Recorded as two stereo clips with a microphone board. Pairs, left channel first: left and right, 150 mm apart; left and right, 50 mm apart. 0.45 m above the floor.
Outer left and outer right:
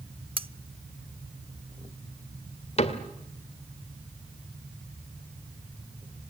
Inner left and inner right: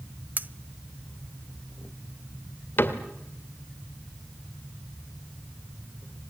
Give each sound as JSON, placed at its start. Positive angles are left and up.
{"t": 0.4, "sound": "cutlery clinking", "side_deg": -40, "distance_m": 0.5}
{"t": 2.8, "sound": "a cupboard door", "side_deg": 45, "distance_m": 2.0}